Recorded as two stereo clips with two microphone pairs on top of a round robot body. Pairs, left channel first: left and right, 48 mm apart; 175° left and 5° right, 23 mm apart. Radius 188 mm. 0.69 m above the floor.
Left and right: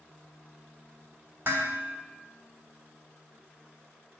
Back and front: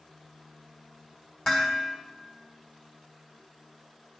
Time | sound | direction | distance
1.4 | dishes clattering | 135° right | 1.9 m